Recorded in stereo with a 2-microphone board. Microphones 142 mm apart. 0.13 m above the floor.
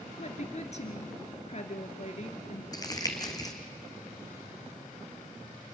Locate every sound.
0.2 s a woman speaking: 50° left (ahead or behind), 1.8 m
2.7 s crumpling: 25° left (ahead or behind), 1.8 m